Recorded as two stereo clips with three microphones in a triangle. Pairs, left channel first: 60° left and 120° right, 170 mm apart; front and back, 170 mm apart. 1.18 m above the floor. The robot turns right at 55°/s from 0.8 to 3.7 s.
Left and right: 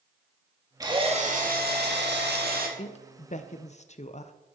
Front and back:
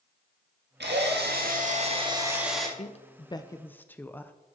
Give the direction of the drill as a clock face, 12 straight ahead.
6 o'clock.